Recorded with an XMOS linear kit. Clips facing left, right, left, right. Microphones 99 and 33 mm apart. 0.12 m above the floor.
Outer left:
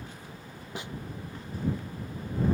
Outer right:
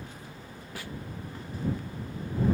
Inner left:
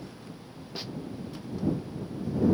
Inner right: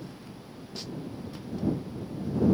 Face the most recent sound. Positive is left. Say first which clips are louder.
# outer left 2 dB, inner left 1 dB
turn(degrees=20)  # may be behind; listen again after turning